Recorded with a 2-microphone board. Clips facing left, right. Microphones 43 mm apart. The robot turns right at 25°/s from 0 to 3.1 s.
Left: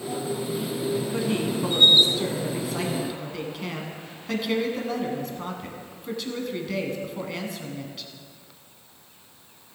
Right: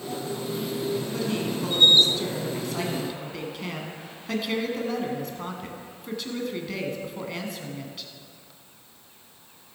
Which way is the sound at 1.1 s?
20° left (ahead or behind).